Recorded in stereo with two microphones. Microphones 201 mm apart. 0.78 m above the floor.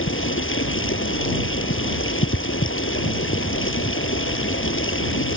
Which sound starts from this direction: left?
Running water, at 0.0 s.